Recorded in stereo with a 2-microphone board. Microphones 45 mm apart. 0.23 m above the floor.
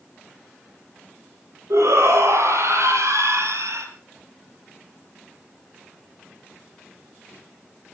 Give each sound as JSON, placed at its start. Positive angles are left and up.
{"t": 1.7, "sound": "a shout", "side_deg": -80, "distance_m": 7.0}